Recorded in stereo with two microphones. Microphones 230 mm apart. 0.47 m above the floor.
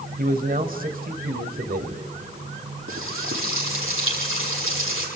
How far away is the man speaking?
About 1.9 m.